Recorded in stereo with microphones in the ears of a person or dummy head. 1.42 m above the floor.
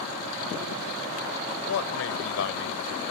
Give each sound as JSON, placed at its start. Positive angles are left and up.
{"t": 1.6, "sound": "a man speaking", "side_deg": 75}